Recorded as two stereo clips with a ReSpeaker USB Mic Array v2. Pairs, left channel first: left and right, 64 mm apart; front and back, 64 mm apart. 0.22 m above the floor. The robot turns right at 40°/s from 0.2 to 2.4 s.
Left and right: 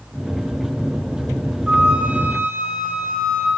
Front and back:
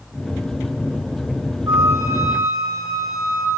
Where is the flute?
170° right, 6 m; by 3.5 s 140° right, 6 m.